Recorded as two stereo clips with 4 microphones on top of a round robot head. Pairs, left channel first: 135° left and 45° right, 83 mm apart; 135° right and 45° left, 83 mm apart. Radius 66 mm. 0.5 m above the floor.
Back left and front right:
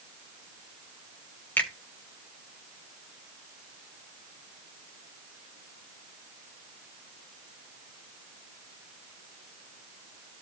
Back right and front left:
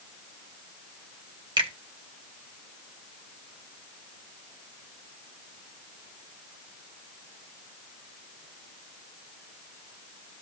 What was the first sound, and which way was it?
A finger snap, 65° left.